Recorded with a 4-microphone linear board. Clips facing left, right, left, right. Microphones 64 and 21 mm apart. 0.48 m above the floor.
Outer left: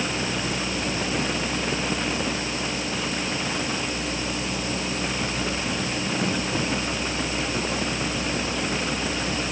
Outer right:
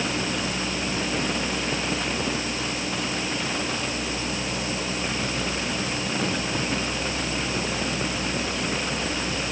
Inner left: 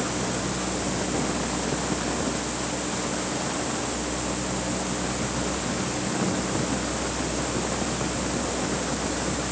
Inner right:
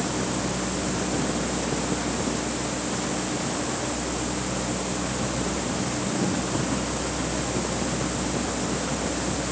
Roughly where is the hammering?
I don't hear hammering.